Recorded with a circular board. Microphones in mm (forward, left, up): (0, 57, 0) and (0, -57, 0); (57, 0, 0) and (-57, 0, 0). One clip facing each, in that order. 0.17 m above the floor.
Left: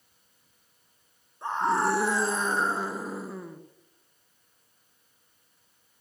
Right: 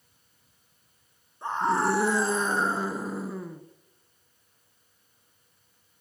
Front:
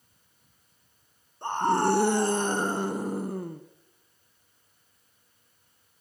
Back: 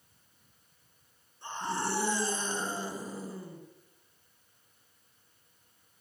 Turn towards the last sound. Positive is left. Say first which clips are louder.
# even, front 10 dB
turn(degrees=0)